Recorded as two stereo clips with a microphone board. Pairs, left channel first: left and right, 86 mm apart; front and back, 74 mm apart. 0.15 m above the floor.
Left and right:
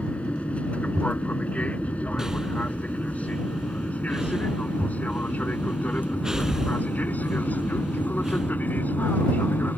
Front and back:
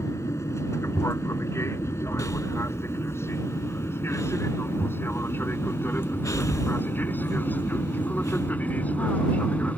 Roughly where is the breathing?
Ahead.